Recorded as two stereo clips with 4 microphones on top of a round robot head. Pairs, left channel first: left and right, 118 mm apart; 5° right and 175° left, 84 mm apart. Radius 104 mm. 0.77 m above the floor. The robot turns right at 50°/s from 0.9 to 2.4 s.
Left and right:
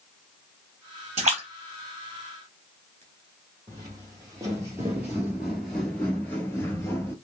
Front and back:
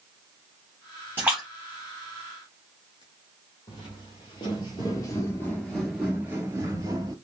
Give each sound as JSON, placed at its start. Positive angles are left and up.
{"t": 1.2, "sound": "a splash", "azimuth_deg": -115, "distance_m": 1.0}
{"t": 3.7, "sound": "footsteps", "azimuth_deg": -25, "distance_m": 1.3}